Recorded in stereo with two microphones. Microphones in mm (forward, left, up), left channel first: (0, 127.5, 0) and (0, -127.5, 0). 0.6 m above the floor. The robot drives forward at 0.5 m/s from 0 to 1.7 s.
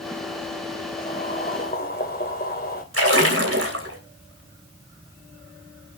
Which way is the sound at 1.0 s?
35° left (ahead or behind).